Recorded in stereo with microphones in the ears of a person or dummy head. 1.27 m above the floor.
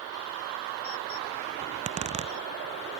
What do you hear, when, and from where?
1.6 s a zipper: 35° right (ahead or behind), 0.5 m